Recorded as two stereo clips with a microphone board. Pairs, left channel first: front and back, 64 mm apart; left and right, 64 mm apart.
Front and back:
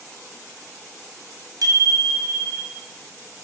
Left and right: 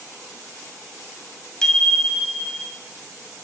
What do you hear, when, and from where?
1.6 s a bicycle bell: 170° left, 3.5 m; by 2.8 s straight behind, 4 m